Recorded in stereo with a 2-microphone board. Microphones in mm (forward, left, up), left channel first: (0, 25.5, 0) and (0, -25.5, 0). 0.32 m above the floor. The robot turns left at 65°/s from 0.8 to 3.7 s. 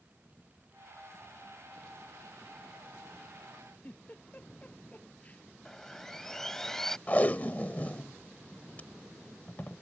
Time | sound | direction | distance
3.8 | a giggle | 30° left (ahead or behind) | ?
5.7 | sawing | 10° left (ahead or behind) | ?
7.1 | tape being pulled | 30° left (ahead or behind) | ?